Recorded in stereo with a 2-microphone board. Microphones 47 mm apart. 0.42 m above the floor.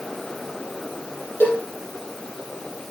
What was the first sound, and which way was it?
A cowbell, 60° left (ahead or behind).